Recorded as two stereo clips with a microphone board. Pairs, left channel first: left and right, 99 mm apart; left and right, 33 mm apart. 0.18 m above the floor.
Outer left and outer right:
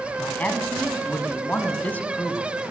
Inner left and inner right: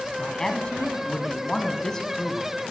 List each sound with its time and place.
0.2 s a man speaking: 15° left (ahead or behind), 1.2 m